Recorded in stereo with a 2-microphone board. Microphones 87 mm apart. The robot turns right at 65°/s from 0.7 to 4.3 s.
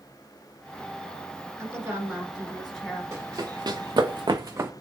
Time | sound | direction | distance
1.6 | a woman speaking | 70° right | 1.7 m
3.1 | running footsteps | 35° right (ahead or behind) | 1.1 m